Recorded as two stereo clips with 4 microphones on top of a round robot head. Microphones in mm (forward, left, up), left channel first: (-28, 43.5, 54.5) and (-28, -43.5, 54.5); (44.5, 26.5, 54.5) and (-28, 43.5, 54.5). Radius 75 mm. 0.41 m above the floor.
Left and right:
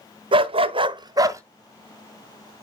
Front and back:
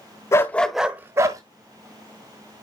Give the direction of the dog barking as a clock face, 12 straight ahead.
2 o'clock.